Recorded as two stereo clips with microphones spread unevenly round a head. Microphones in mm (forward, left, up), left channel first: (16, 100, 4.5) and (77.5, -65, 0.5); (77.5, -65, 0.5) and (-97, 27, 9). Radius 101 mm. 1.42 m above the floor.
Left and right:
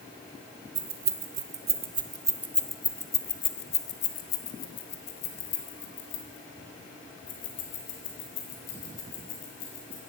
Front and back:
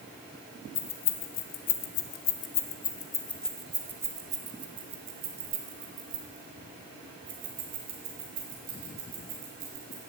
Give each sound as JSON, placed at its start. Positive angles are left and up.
{"t": 0.8, "sound": "keys jangling", "azimuth_deg": -40, "distance_m": 1.3}